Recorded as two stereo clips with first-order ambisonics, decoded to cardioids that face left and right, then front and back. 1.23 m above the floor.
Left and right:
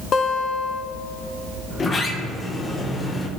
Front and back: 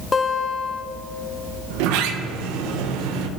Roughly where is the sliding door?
Behind.